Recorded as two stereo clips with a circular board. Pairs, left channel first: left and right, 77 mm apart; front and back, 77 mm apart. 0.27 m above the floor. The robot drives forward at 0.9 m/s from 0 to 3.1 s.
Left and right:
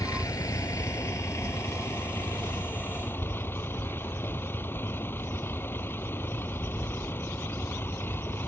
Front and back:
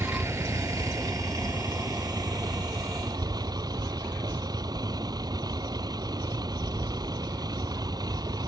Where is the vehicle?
125° left; by 8.5 s 150° left.